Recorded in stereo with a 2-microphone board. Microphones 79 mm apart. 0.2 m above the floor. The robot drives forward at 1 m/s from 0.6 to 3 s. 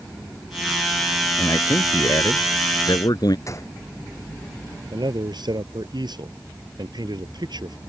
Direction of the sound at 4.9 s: 70° right (ahead or behind).